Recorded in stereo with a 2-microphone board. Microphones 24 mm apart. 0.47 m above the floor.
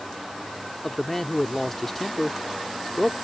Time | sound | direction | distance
0.8 | a man speaking | 10° left (ahead or behind) | ?